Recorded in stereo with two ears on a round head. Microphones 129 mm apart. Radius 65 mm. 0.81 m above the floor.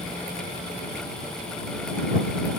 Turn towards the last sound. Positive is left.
No sound to turn to.